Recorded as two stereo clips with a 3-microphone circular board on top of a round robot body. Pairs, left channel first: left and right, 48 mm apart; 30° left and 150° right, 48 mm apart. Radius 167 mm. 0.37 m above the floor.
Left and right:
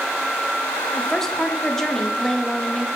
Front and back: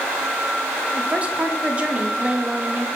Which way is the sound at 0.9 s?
165° left.